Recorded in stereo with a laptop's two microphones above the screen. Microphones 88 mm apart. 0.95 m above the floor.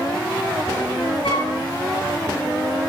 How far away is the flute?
About 2 m.